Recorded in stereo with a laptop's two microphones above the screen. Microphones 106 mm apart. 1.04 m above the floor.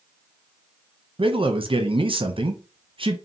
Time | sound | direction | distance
1.2 | a man speaking | 55° right (ahead or behind) | 0.8 m